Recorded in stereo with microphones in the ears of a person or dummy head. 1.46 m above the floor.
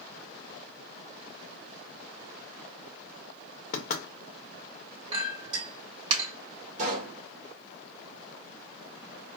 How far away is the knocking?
About 0.8 m.